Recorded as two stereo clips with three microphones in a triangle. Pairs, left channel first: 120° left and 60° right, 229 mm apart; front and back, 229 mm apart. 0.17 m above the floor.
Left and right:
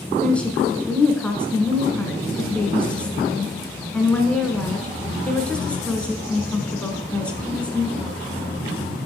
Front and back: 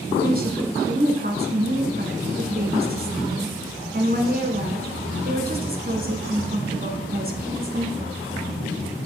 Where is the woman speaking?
160° right, 1.6 m.